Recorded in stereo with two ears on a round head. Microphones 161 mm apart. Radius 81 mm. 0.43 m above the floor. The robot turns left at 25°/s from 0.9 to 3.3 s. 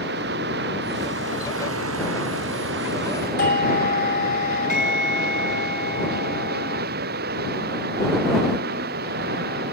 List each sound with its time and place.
0.0 s running water: 60° right; by 9.7 s 120° right
3.4 s a doorbell: 50° left (ahead or behind)